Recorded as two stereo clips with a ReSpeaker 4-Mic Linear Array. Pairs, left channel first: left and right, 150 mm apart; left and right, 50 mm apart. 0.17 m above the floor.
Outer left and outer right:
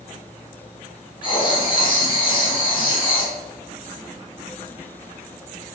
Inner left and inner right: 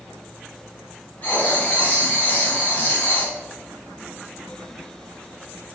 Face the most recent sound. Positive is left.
turn(degrees=30)  # may be behind; listen again after turning